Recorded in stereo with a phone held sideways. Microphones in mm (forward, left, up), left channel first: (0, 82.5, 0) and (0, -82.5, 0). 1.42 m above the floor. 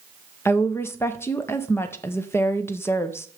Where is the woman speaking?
15° left (ahead or behind), 0.9 m.